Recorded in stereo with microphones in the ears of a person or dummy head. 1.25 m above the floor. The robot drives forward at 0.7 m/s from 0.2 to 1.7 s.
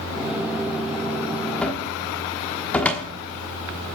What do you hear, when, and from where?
1.6 s a cupboard door: centre (ahead or behind), 1.0 m